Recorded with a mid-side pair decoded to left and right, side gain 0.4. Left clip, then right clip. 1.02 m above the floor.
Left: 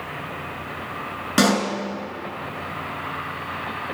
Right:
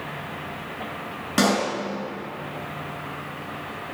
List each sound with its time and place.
1.4 s a pop: 20° left, 3 m